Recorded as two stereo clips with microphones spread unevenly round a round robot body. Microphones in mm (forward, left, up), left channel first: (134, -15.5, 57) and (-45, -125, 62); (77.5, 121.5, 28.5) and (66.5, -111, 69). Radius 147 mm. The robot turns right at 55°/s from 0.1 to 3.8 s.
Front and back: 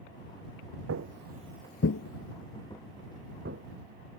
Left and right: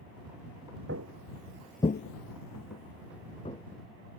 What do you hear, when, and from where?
0.9 s footsteps: 140° right; by 4.2 s straight behind